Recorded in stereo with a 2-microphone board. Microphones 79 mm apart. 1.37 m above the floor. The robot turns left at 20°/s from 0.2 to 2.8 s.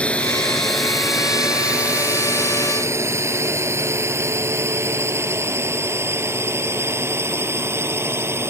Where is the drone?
15° left (ahead or behind); by 8.5 s 30° right (ahead or behind).